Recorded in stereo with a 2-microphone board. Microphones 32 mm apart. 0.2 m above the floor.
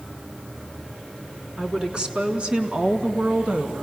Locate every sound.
1.6 s a woman speaking: 25° right (ahead or behind), 2 m; by 3.8 s 45° right (ahead or behind), 1.6 m